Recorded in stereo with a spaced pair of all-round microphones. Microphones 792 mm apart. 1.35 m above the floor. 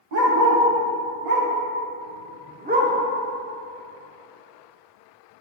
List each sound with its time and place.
0.1 s a dog barking: 55° right (ahead or behind), 1.6 m; by 2.9 s 5° right (ahead or behind), 1.1 m